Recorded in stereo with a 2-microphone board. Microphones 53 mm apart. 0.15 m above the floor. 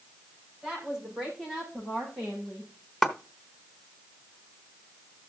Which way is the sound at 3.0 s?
Centre (ahead or behind).